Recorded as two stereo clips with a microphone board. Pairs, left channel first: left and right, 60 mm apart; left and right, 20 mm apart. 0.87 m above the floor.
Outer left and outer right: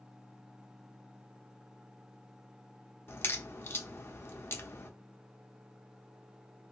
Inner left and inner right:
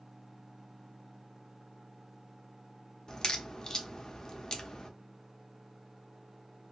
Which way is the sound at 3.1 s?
40° left (ahead or behind).